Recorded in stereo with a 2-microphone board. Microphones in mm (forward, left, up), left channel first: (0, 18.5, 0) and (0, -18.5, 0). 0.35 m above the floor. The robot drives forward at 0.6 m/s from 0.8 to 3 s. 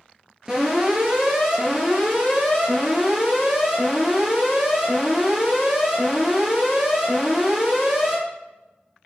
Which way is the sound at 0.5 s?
15° right (ahead or behind).